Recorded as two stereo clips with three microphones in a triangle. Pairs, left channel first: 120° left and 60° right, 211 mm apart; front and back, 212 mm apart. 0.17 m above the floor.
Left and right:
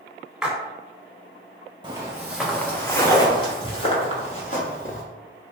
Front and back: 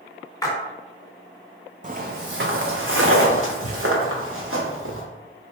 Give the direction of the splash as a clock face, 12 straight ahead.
11 o'clock.